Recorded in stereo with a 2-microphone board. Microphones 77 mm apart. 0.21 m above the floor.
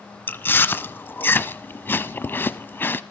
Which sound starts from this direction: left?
Chewing, at 0.3 s.